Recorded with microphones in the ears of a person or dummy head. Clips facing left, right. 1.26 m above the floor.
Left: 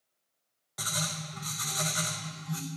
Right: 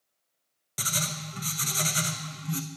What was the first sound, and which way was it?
Writing, 35° right (ahead or behind).